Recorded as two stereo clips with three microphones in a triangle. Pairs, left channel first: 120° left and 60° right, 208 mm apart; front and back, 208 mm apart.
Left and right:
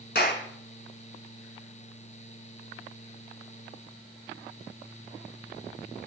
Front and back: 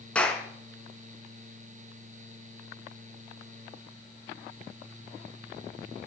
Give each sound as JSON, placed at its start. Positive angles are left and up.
{"t": 0.1, "sound": "a clap", "azimuth_deg": 85, "distance_m": 5.5}